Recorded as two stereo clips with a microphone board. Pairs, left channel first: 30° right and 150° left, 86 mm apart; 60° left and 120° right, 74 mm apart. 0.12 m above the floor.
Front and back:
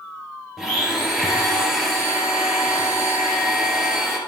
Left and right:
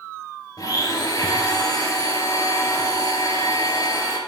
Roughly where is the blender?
Ahead left.